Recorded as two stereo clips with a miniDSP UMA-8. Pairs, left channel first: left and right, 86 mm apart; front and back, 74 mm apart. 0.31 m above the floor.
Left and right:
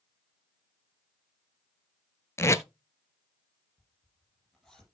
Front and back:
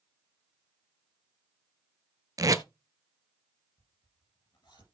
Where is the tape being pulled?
145° left, 0.8 m.